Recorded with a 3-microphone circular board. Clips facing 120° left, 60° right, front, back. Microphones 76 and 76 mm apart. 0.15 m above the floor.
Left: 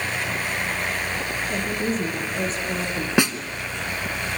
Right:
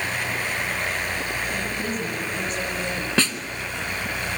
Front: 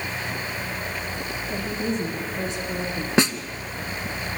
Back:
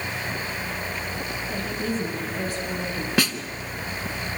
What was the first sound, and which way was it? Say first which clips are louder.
A woman speaking: left 3 dB, front 2 dB; 65° left.